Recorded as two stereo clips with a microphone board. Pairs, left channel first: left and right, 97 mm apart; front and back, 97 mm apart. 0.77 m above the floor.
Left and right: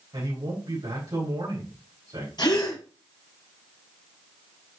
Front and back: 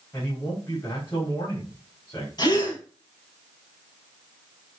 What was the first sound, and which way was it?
A man speaking, 60° right.